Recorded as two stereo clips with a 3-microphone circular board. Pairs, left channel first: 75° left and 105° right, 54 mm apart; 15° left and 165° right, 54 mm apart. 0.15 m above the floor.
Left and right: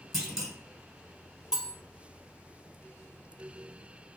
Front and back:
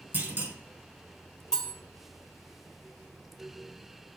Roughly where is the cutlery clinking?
Ahead right.